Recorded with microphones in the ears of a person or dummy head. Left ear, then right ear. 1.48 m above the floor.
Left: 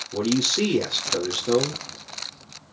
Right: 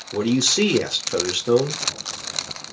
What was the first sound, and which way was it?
A man speaking, 10° right (ahead or behind).